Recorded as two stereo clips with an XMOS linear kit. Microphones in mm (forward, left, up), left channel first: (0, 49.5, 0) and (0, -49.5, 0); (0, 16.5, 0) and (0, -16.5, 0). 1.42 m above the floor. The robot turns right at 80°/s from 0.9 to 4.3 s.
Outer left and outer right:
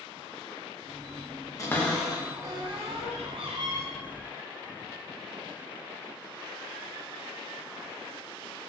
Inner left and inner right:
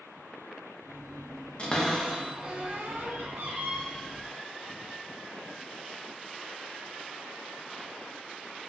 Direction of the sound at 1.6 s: 35° left (ahead or behind).